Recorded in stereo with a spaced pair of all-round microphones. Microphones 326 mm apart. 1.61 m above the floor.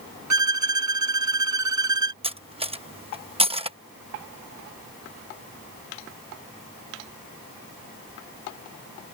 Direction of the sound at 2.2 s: 20° right (ahead or behind).